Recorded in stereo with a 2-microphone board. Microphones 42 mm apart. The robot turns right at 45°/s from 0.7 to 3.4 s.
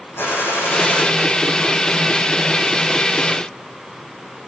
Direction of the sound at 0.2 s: 70° left (ahead or behind).